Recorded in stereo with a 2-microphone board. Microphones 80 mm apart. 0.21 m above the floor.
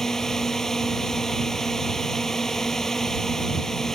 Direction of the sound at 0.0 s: 5° left (ahead or behind).